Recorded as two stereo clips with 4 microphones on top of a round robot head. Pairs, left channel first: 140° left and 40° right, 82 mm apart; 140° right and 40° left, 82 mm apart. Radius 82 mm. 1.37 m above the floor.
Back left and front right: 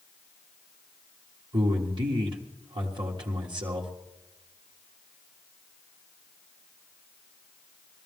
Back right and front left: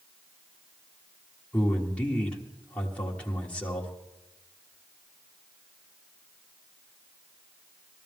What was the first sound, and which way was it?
A man speaking, 65° right.